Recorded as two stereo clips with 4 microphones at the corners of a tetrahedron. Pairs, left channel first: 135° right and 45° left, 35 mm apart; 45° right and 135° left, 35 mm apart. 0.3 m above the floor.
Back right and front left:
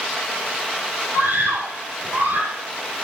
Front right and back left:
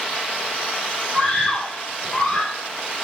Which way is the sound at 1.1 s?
30° left.